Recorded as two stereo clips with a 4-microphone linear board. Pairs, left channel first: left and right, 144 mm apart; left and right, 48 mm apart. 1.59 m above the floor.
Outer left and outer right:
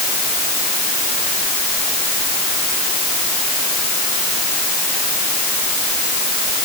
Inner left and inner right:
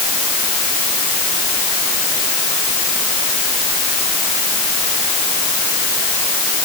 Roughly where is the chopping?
No chopping in this recording.